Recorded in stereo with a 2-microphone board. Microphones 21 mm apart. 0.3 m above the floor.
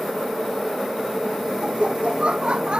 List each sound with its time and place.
1.6 s laughter: 50° right (ahead or behind)